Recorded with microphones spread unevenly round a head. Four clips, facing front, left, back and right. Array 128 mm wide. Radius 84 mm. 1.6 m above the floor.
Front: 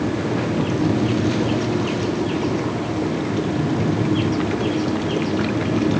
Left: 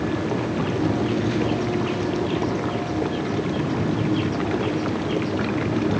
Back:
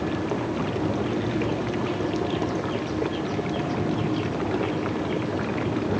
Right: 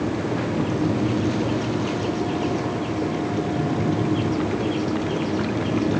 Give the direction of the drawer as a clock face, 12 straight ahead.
No drawer in this recording.